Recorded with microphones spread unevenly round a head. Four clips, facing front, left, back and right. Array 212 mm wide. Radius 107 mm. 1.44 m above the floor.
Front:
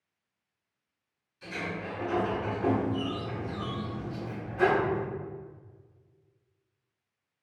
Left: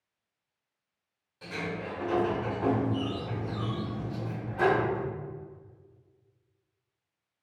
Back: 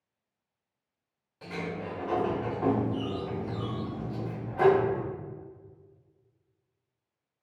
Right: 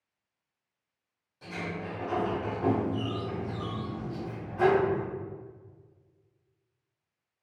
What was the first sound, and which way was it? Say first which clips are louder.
A sliding door: left 1 dB, back 1 dB; 175° left.